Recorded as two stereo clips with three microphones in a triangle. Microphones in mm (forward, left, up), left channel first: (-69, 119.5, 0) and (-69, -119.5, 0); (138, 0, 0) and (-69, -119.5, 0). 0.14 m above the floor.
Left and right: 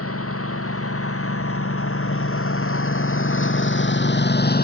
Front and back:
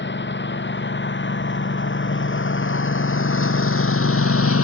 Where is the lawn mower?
70° left; by 4.7 s 45° left.